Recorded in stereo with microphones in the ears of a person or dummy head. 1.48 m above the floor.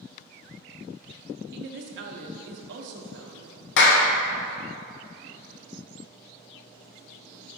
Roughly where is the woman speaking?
Right.